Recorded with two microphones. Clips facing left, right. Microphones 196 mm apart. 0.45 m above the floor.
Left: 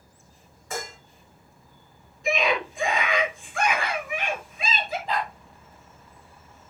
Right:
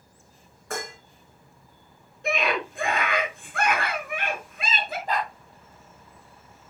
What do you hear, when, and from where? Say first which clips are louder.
0.7 s dishes clattering: right 1 dB; 65° right (ahead or behind), 3.5 m
2.2 s a scream: left 2 dB; 65° right (ahead or behind), 7.5 m
5.1 s a dog barking: right 2 dB; 50° right (ahead or behind), 5.5 m